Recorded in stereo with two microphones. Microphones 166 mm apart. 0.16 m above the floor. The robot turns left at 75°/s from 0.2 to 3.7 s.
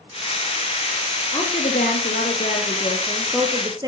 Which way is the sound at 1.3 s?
155° left.